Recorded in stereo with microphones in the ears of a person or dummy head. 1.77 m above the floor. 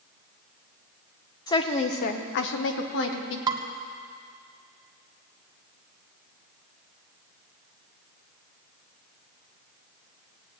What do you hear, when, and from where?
1.5 s a woman speaking: 20° left (ahead or behind), 1.1 m; by 3.4 s 65° left (ahead or behind), 1.7 m
3.5 s dishes clattering: 25° right (ahead or behind), 1.3 m